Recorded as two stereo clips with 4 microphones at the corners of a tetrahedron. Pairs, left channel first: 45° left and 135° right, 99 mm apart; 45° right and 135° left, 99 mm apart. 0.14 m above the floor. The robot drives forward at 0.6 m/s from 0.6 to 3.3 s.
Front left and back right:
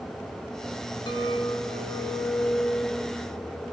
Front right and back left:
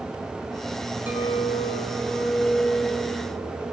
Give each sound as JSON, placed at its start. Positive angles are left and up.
{"t": 1.1, "sound": "a clink", "azimuth_deg": 65, "distance_m": 2.5}